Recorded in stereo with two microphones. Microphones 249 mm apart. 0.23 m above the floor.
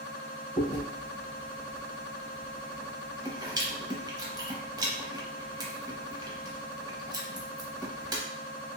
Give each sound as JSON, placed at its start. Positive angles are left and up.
{"t": 0.6, "sound": "chewing", "side_deg": -15, "distance_m": 0.7}